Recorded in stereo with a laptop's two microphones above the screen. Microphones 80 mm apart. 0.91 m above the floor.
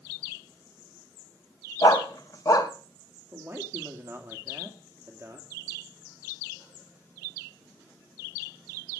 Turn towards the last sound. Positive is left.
turn(degrees=-30)  # may be behind; listen again after turning